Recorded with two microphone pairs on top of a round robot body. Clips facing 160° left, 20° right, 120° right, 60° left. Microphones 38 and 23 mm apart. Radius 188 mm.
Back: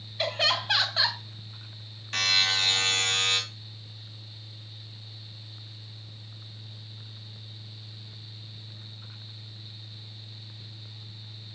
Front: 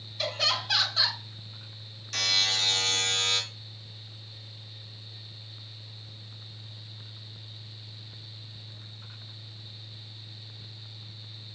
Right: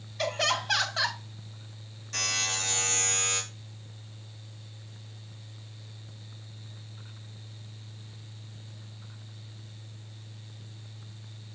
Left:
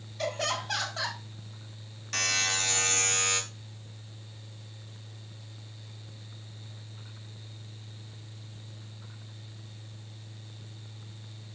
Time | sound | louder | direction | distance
0.2 | laughter | back 3 dB, right 3 dB | 160° right | 2.5 m
2.1 | a buzzer | back 2 dB, left 2 dB | 105° left | 3.5 m